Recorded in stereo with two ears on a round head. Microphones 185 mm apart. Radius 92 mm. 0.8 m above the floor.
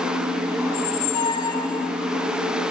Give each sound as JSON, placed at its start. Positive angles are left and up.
{"t": 0.7, "sound": "a squeak", "side_deg": 20, "distance_m": 1.3}